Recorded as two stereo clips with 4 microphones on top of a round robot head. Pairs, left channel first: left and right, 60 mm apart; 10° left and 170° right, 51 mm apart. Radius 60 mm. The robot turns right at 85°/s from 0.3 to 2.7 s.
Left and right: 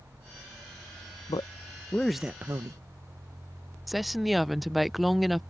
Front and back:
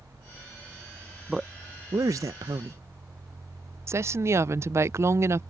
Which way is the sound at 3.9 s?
Straight behind.